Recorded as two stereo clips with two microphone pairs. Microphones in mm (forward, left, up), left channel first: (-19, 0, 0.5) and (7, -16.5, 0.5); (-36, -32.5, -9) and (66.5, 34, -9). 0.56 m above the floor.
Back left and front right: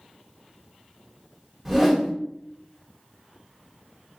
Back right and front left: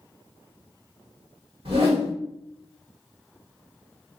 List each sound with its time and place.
1.6 s a whoosh: 50° left, 1.2 m